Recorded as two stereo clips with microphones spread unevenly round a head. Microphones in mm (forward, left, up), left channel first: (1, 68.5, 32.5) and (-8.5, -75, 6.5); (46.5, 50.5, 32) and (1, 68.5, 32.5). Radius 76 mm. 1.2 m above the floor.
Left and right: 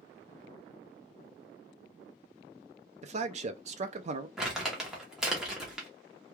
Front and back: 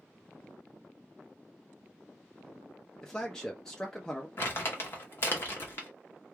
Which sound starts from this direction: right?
A man speaking, at 3.0 s.